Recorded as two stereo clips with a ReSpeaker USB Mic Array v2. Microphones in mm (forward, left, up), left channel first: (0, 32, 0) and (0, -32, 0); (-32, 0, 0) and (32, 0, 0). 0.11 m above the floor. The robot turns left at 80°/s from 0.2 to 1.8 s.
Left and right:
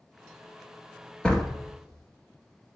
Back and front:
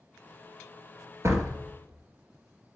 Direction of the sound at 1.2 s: 15° left.